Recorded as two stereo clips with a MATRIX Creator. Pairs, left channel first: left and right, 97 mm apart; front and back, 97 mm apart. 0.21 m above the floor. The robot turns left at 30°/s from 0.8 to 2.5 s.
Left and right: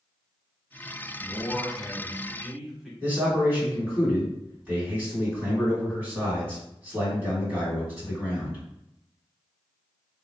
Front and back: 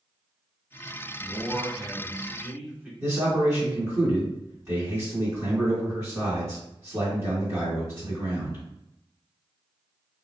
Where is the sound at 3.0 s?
150° right, 2.0 m.